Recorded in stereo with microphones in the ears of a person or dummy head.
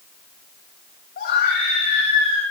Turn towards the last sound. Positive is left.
turn(degrees=55)  # may be behind; listen again after turning